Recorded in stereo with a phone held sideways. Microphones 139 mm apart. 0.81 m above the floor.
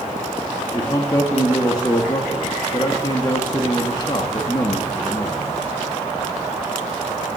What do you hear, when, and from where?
0.7 s a man speaking: 25° left (ahead or behind), 1.1 m